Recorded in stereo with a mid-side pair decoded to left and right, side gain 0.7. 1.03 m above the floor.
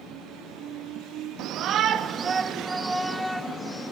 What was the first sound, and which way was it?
A shout, 55° right.